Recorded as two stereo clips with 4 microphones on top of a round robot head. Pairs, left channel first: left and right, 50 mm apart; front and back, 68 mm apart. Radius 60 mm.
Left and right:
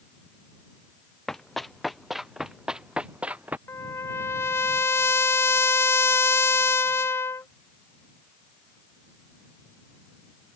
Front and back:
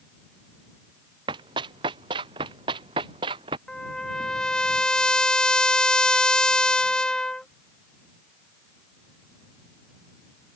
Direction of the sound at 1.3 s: 175° left.